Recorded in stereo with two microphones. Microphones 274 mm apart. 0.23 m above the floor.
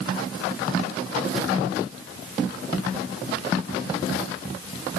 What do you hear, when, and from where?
Only background noise.